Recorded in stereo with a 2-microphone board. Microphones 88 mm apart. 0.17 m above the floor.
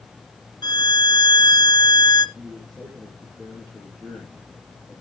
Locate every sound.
0.6 s a violin: 55° left (ahead or behind), 1.3 m
2.4 s a man speaking: centre (ahead or behind), 4.5 m